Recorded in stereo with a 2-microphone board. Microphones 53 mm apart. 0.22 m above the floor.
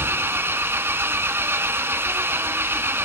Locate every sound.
0.0 s an engine running: 45° right (ahead or behind), 1.5 m